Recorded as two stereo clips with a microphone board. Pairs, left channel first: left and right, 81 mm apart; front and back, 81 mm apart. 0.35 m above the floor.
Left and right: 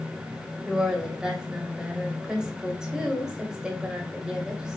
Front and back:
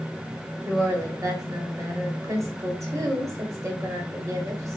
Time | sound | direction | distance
0.7 | a woman speaking | 165° right | 1.5 m